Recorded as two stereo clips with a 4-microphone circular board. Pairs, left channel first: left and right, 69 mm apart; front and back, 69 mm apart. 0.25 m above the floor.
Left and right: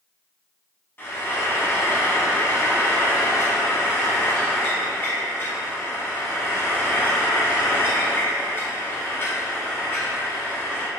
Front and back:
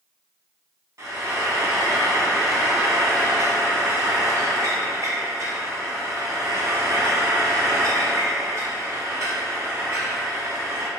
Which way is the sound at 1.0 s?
145° left.